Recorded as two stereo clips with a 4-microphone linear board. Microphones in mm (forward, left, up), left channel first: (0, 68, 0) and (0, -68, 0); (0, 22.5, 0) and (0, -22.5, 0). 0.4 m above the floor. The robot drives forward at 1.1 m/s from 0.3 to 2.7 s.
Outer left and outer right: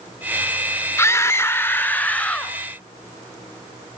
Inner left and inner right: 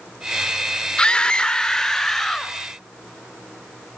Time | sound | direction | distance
1.0 | a scream | 20° left (ahead or behind) | 0.8 m